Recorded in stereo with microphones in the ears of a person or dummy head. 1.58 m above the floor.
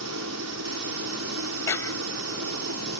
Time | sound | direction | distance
0.0 | a helicopter | 75° right (ahead or behind) | ?
1.7 | a clap | 15° left (ahead or behind) | ?